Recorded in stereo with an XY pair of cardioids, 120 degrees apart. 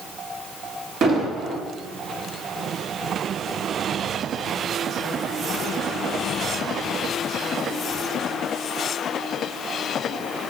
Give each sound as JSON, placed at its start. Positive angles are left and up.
{"t": 1.0, "sound": "an explosion", "azimuth_deg": -55, "distance_m": 1.4}